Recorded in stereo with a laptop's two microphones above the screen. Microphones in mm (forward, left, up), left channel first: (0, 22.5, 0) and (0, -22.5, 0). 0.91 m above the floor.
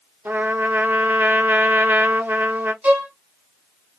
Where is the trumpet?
55° right (ahead or behind), 0.7 m.